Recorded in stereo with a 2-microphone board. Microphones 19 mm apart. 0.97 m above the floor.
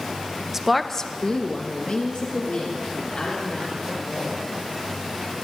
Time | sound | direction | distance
0.5 | a woman speaking | 25° right (ahead or behind) | 0.7 m